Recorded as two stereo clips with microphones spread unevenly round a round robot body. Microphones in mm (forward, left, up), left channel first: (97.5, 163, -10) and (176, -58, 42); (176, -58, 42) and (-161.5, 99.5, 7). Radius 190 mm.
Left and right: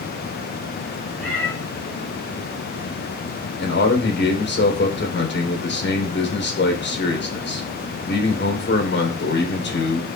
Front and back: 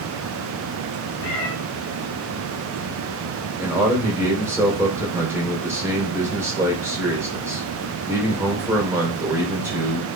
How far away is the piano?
No piano in this recording.